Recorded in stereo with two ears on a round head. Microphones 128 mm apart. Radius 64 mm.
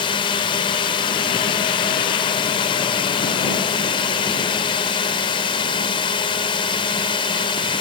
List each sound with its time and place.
0.0 s a drone: 35° left (ahead or behind)